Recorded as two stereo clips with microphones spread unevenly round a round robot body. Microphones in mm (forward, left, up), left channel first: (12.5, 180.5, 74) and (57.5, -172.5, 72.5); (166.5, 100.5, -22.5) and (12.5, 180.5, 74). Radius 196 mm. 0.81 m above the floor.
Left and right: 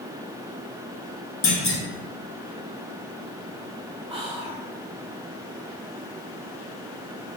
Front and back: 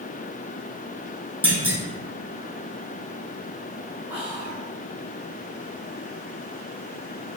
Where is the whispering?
35° right, 1.0 m.